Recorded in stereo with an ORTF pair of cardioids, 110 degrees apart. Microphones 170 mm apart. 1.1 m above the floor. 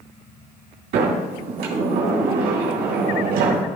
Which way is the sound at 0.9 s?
70° right.